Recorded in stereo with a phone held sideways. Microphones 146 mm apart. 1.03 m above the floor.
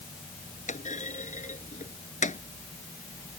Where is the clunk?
65° left (ahead or behind).